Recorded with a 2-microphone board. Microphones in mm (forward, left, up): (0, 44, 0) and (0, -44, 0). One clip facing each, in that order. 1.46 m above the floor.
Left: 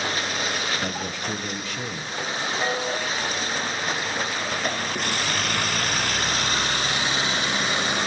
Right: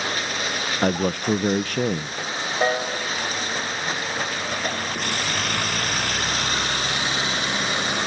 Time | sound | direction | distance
0.8 | a man speaking | 55° right (ahead or behind) | 0.5 m
2.6 | a piano | 40° right (ahead or behind) | 5 m